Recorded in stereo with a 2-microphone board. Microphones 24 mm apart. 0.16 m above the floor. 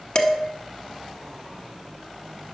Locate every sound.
0.1 s dishes clattering: 35° left (ahead or behind), 0.8 m